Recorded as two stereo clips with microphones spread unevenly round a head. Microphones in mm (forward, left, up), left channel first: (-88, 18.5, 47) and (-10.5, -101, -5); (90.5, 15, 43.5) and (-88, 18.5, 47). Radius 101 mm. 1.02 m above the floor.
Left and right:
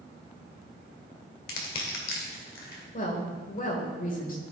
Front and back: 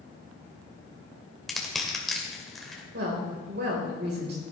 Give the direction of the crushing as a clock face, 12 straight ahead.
9 o'clock.